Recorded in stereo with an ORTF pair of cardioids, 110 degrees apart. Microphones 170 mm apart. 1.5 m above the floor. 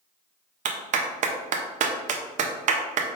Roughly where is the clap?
Ahead right.